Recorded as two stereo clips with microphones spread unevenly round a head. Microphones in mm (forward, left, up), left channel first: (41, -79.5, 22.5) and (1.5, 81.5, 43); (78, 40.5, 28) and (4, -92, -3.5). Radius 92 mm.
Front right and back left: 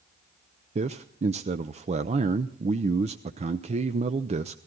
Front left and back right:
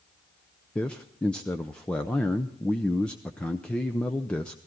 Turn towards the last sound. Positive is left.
turn(degrees=150)